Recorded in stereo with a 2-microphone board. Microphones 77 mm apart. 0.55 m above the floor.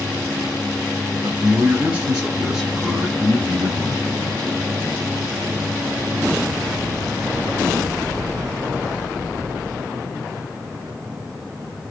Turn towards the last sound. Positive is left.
turn(degrees=10)  # may be behind; listen again after turning